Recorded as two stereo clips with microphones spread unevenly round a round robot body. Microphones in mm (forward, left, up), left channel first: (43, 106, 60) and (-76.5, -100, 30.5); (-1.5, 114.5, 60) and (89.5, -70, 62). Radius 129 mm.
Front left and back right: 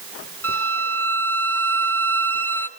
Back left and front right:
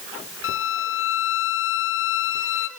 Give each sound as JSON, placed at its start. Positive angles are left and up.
{"t": 0.4, "sound": "a violin", "azimuth_deg": 145, "distance_m": 0.8}